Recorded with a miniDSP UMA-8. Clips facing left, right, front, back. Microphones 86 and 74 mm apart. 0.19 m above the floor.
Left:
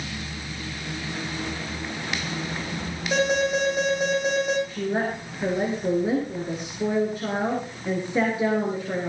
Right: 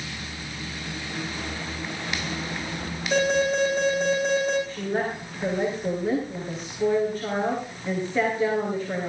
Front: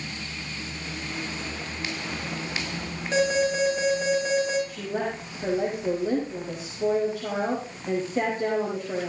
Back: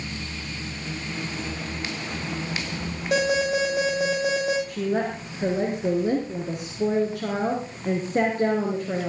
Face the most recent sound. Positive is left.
turn(degrees=165)